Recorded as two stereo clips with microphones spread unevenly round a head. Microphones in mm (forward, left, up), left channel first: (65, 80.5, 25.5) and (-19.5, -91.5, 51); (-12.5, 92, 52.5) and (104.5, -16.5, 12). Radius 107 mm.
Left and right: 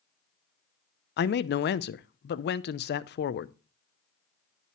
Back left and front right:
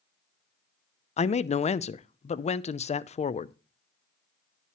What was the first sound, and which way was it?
A man speaking, 80° left.